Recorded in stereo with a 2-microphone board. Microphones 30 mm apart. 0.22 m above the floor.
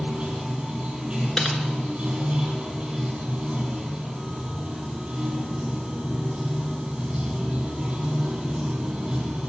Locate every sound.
0.0 s running water: 30° right (ahead or behind), 2.5 m
1.4 s typing on a keyboard: 20° left (ahead or behind), 1.1 m